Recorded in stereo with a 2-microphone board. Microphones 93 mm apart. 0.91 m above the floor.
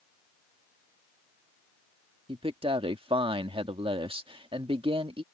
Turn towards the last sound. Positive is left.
turn(degrees=-75)  # may be behind; listen again after turning